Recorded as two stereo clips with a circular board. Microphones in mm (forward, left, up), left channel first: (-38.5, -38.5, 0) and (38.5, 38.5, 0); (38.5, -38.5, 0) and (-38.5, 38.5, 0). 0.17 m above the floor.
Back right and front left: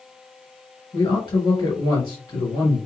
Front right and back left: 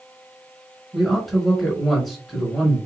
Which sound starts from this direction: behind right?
A man speaking, at 0.9 s.